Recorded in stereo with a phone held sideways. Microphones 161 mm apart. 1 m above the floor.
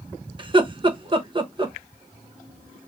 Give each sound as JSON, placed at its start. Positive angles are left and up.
{"t": 0.4, "sound": "laughter", "side_deg": -30, "distance_m": 0.8}